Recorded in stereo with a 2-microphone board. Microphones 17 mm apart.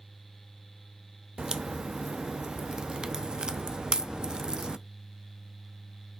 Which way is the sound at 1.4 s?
55° right (ahead or behind).